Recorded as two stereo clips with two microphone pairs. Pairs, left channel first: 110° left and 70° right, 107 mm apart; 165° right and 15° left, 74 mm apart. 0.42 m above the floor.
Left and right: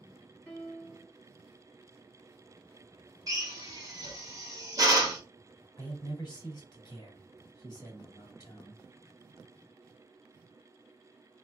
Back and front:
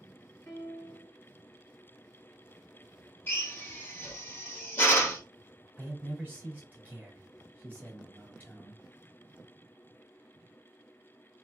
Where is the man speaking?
70° left, 1.2 m.